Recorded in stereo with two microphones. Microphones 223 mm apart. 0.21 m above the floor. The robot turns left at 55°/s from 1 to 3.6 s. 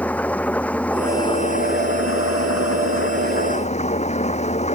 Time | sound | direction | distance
0.0 | an engine running | 175° left | ?